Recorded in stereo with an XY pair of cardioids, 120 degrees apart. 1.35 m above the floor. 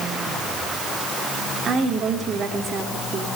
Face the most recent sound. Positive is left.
turn(degrees=-50)